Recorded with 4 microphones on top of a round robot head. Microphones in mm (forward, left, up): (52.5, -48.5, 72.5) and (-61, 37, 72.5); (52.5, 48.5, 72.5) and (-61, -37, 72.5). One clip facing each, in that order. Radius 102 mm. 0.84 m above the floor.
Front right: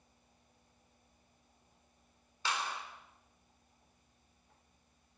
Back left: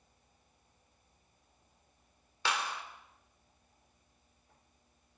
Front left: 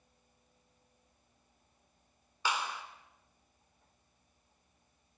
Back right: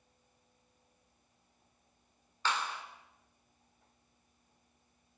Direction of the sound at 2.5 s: 115° left.